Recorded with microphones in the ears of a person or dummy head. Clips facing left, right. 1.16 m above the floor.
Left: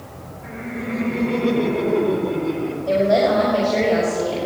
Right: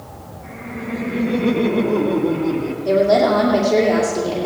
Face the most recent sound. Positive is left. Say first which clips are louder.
# right 2 dB
turn(degrees=-80)